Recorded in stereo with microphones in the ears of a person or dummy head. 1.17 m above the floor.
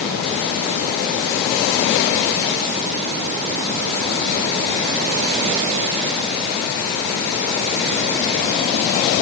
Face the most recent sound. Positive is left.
No sound to turn to.